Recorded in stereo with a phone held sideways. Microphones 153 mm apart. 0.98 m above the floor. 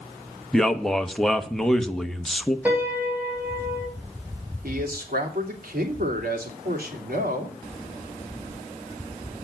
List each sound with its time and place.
0.5 s a man speaking: 5° left (ahead or behind), 1.0 m
2.6 s a piano: 10° right (ahead or behind), 3.5 m
4.6 s a man speaking: 75° right (ahead or behind), 2.5 m